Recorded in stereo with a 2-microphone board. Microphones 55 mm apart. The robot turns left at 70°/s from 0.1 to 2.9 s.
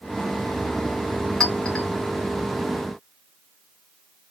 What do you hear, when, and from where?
1.4 s a clink: 10° left (ahead or behind), 0.5 m; by 1.9 s 30° left (ahead or behind), 0.5 m